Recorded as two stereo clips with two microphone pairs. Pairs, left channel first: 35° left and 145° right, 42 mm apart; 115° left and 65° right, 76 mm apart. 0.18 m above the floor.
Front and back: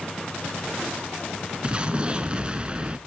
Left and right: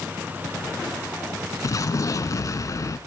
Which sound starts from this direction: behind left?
An explosion, at 1.6 s.